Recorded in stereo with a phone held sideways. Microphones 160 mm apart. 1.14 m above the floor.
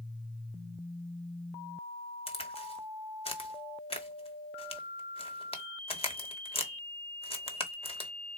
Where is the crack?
40° left (ahead or behind), 1.2 m.